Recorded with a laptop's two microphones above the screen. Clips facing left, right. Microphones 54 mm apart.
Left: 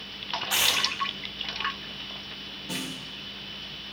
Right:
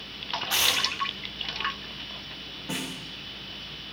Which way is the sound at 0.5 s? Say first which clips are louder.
Even; 15° left (ahead or behind).